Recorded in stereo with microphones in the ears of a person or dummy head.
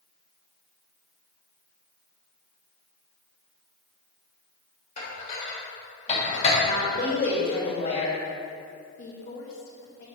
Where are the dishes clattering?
40° left (ahead or behind), 2 m.